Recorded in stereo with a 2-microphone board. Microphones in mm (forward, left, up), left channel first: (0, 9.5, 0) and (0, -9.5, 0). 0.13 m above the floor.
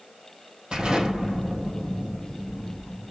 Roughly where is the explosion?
Right.